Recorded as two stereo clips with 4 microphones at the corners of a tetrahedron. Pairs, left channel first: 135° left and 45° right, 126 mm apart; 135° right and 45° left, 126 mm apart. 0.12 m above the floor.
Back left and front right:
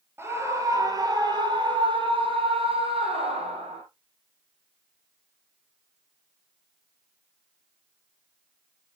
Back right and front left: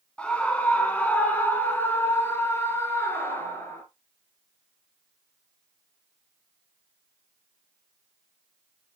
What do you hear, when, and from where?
0.2 s a scream: 70° right, 1.6 m; by 3.8 s 65° right, 3 m